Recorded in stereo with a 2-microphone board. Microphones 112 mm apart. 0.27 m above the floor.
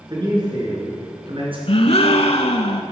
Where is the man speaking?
40° right (ahead or behind), 3 m; by 1.6 s 55° right (ahead or behind), 3 m.